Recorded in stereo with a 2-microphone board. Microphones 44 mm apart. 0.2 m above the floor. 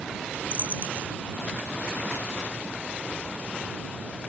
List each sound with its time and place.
0.5 s a dropped coin: 45° right (ahead or behind)